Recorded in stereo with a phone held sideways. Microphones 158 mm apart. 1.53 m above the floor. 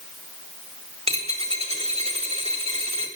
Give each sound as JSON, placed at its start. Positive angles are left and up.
{"t": 1.1, "sound": "a dropped coin", "side_deg": -40, "distance_m": 1.6}